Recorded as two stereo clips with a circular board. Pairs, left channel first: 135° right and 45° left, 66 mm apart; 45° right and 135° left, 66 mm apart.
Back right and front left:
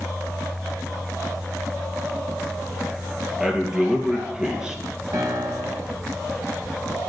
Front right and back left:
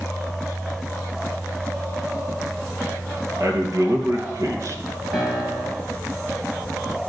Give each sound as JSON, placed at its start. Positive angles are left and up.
{"t": 3.4, "sound": "a man speaking", "azimuth_deg": 125, "distance_m": 3.0}
{"t": 5.1, "sound": "a piano", "azimuth_deg": 50, "distance_m": 4.5}